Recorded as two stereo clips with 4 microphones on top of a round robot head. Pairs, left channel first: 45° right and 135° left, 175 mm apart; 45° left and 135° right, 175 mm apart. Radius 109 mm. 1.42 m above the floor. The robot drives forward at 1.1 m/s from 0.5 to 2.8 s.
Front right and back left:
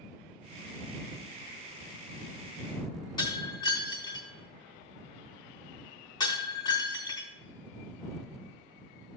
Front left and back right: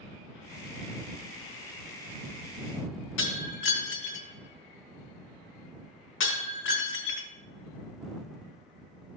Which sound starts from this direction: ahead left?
Breaking glass, at 3.2 s.